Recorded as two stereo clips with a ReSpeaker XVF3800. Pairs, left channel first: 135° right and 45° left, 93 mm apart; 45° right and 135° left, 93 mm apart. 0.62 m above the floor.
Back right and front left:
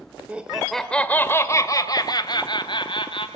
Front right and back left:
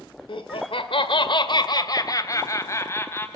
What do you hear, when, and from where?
0.3 s laughter: 30° right, 2.0 m; by 3.3 s 110° right, 4 m